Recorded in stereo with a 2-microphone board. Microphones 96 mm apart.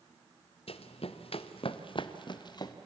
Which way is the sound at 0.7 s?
80° left.